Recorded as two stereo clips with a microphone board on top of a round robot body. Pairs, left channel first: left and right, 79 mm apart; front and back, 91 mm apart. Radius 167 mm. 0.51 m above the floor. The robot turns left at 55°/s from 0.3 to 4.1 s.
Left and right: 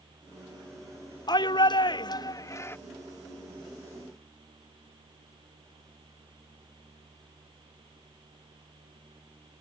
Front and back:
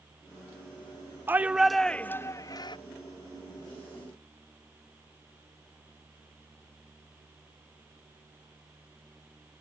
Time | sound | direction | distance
1.3 | a shout | 115° left | ?